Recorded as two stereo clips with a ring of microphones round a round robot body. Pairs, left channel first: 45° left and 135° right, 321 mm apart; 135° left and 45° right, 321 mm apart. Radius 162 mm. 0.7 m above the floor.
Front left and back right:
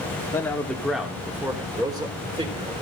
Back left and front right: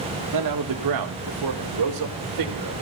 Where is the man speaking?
35° right, 1.9 m; by 2.8 s 65° right, 3.5 m.